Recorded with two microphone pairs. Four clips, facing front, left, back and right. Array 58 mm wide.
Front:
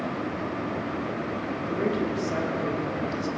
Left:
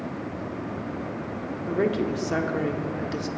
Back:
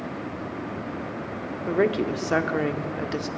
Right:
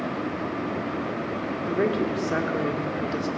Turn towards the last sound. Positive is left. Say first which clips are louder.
# even, back 5 dB
turn(degrees=-170)